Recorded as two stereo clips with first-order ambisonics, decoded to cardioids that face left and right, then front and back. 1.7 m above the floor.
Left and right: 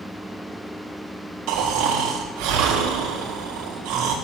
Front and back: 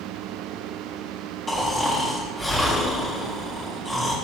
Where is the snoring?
85° right, 3.5 m.